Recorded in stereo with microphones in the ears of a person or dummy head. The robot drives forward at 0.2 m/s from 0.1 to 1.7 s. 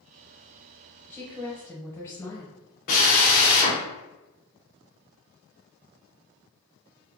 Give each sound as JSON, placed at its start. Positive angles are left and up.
{"t": 1.1, "sound": "a woman speaking", "side_deg": 10, "distance_m": 0.6}
{"t": 2.9, "sound": "a drill", "side_deg": 40, "distance_m": 0.9}